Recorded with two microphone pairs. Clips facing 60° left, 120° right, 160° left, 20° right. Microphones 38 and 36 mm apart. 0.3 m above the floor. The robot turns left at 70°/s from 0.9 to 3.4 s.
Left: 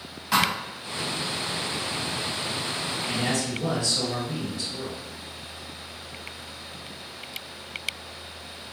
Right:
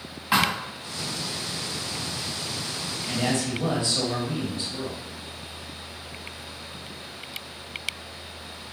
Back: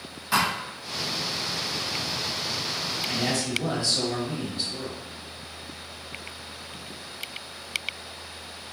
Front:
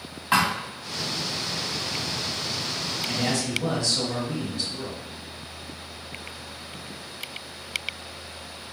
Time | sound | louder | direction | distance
0.3 | a thud | right 1 dB, front 2 dB | 55° right | 1.0 m
3.1 | a man speaking | right 3 dB, front 1 dB | 115° right | 1.0 m